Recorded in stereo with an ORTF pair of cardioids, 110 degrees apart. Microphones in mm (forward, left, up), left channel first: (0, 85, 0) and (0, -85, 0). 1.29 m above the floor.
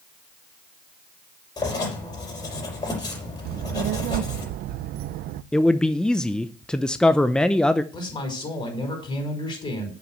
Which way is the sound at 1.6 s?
25° left.